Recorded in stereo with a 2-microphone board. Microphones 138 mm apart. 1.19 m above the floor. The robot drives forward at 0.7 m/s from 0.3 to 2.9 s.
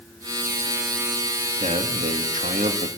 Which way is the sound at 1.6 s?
60° right (ahead or behind).